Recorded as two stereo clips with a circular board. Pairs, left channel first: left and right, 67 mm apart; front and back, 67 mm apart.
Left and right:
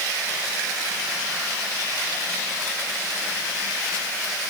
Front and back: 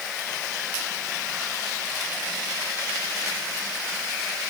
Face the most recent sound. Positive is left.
No sound to turn to.